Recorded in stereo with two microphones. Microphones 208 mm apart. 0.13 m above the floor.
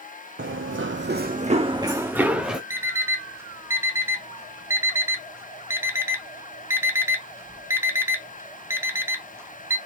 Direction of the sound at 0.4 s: 75° right (ahead or behind).